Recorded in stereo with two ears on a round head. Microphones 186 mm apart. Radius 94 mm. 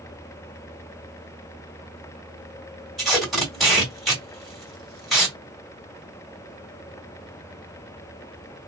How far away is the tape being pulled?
About 1.6 m.